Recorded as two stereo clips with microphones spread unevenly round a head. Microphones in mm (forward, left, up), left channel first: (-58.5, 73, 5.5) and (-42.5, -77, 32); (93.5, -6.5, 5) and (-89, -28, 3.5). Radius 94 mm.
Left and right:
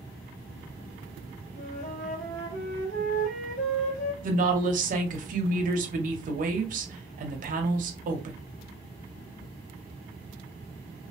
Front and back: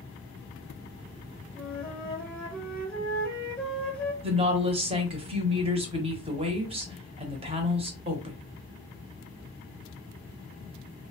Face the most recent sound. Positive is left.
turn(degrees=-115)